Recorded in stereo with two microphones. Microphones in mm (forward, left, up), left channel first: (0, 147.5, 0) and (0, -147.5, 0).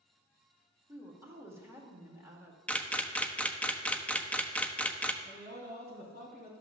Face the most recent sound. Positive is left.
turn(degrees=30)  # may be behind; listen again after turning